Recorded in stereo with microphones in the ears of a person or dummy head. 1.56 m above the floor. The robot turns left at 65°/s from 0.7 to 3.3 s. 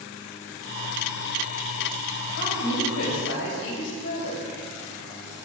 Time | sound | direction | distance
2.4 | a woman speaking | 130° left | 7 m